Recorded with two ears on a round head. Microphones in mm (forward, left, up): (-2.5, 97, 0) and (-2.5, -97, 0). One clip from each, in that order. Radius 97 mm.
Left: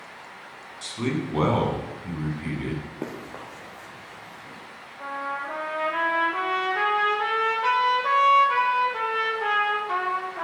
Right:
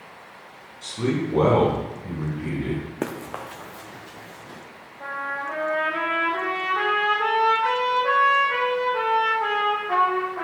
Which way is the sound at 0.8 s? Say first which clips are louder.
Right 3 dB; 75° left (ahead or behind).